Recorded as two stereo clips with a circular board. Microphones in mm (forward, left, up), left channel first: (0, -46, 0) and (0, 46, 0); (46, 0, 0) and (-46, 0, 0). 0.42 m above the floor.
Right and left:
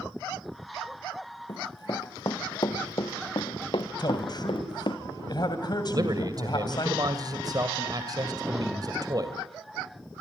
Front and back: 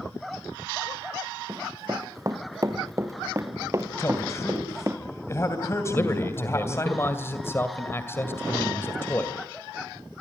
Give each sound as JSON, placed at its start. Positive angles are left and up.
{"t": 1.5, "sound": "running footsteps", "azimuth_deg": -135, "distance_m": 1.8}
{"t": 4.0, "sound": "a man speaking", "azimuth_deg": -55, "distance_m": 2.5}
{"t": 5.9, "sound": "a man speaking", "azimuth_deg": 60, "distance_m": 2.0}